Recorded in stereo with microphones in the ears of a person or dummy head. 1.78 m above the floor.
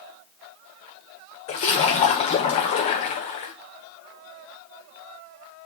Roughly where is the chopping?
No chopping in this recording.